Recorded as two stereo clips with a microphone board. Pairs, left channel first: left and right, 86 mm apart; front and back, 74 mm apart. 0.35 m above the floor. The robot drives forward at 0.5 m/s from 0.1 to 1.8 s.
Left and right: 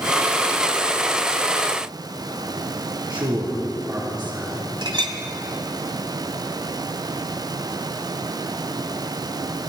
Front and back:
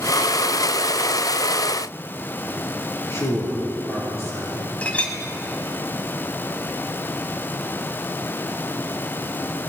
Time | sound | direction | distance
3.1 | a man speaking | 55° right | 5.5 m
4.8 | a clink | 70° right | 1.4 m